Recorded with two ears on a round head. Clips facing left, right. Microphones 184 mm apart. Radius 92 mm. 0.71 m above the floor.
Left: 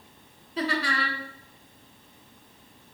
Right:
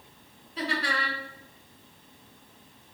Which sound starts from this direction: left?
Laughter, at 0.6 s.